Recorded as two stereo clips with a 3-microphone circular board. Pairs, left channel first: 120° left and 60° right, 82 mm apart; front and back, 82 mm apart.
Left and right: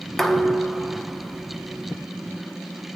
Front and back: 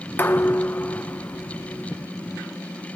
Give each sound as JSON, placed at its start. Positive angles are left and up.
{"t": 0.2, "sound": "dishes clattering", "azimuth_deg": 35, "distance_m": 0.8}